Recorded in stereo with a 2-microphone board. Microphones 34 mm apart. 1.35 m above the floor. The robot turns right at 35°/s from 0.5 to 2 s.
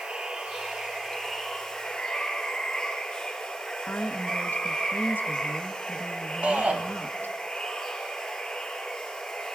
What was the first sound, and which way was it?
Running water, 35° right.